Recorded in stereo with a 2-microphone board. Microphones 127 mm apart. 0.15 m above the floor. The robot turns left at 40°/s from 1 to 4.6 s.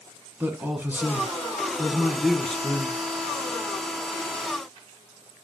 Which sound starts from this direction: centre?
A man speaking, at 0.4 s.